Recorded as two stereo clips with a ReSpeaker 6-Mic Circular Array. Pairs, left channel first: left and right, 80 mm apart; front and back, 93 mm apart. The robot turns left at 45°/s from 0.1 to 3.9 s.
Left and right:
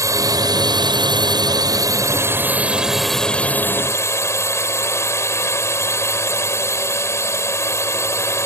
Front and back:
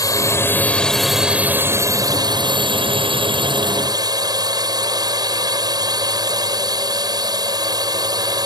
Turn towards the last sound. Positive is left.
turn(degrees=140)